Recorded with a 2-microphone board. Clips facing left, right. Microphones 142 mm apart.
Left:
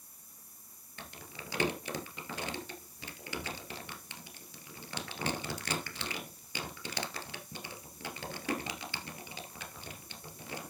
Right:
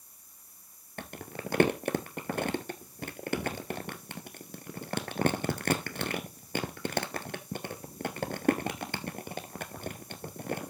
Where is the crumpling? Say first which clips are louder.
Right 9 dB; 55° right (ahead or behind), 1.1 m.